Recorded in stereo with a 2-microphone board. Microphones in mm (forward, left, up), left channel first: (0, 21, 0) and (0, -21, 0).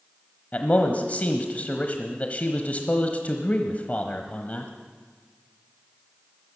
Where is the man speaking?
40° left (ahead or behind), 1.1 m.